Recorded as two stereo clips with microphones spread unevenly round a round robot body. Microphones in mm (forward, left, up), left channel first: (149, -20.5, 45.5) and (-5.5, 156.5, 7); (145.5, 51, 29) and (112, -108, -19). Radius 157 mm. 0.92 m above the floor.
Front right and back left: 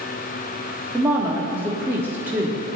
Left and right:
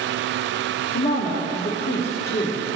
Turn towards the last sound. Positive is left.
turn(degrees=50)